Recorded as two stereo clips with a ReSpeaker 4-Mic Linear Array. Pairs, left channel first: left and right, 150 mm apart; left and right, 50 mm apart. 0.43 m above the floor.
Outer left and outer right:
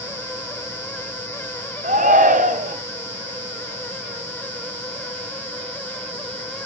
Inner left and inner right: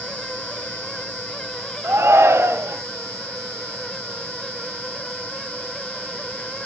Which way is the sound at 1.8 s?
65° right (ahead or behind).